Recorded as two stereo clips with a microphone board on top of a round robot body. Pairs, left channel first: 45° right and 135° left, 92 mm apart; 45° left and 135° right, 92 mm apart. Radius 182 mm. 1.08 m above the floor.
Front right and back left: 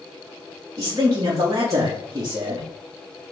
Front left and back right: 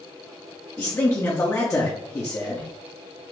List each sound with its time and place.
0.8 s a man speaking: 90° left, 1.1 m